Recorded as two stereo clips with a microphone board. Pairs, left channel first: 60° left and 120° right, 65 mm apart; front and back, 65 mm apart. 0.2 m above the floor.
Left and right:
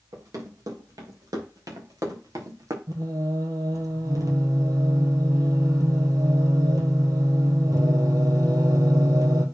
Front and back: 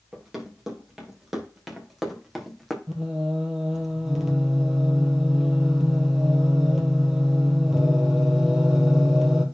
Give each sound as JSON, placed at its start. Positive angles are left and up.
{"t": 0.1, "sound": "running footsteps", "azimuth_deg": -95, "distance_m": 3.5}
{"t": 2.9, "sound": "singing", "azimuth_deg": -95, "distance_m": 1.9}